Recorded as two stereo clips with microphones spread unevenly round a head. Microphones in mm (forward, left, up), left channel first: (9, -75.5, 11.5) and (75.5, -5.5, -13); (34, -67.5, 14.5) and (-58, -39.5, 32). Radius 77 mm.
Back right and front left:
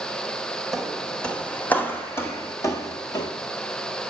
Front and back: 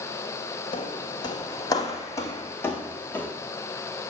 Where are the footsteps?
50° right, 1.8 m; by 3.3 s 95° right, 2.5 m.